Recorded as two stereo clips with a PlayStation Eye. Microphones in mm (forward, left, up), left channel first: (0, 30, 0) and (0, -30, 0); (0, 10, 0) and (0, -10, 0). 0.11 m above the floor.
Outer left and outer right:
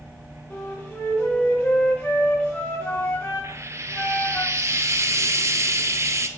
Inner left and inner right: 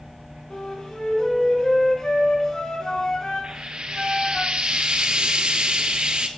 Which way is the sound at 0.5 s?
40° left (ahead or behind).